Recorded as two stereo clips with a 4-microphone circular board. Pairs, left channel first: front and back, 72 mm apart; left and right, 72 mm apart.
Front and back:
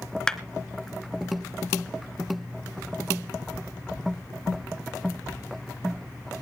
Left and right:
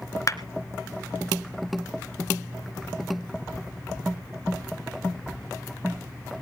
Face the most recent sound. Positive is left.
turn(degrees=75)